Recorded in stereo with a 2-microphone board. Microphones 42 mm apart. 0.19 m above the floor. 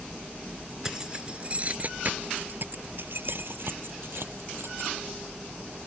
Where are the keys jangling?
15° right (ahead or behind); by 4.9 s 70° right (ahead or behind).